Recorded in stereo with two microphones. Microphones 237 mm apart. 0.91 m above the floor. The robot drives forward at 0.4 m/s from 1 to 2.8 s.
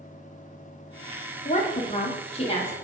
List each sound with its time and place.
1.4 s a woman speaking: 30° left (ahead or behind), 0.6 m; by 2.7 s 25° left (ahead or behind), 0.8 m